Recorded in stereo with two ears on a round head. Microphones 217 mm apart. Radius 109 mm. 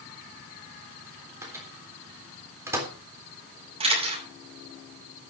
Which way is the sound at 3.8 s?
25° right (ahead or behind).